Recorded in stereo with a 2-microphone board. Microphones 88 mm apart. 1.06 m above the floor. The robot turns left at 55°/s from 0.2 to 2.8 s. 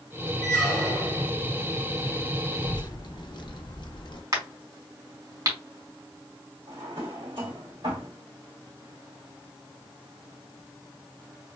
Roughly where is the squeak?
Ahead.